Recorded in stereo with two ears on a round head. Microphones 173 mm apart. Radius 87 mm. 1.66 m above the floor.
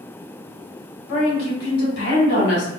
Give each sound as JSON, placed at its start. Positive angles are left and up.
{"t": 1.1, "sound": "a woman speaking", "side_deg": 80, "distance_m": 2.0}